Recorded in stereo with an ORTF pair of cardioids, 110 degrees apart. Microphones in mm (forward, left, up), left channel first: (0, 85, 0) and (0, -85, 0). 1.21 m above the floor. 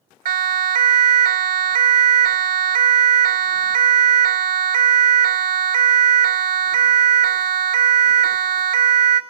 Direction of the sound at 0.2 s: 55° right.